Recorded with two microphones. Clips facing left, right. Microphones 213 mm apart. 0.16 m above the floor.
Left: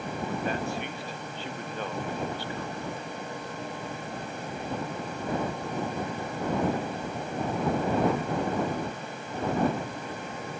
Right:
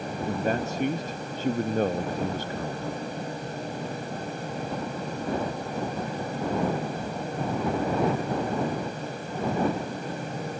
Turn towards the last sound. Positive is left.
turn(degrees=-45)  # may be behind; listen again after turning